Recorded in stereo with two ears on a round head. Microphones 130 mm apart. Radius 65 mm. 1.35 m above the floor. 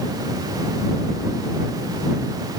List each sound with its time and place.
Only background noise.